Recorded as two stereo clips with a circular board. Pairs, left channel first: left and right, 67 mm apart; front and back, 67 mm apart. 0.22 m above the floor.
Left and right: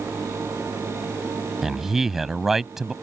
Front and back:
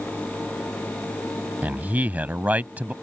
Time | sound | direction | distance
1.6 | a man speaking | 165° right | ?